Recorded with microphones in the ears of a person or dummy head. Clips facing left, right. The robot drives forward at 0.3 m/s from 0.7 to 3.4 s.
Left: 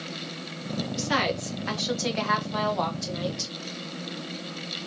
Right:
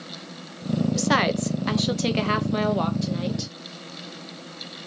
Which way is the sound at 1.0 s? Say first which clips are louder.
Right 5 dB; 60° right (ahead or behind).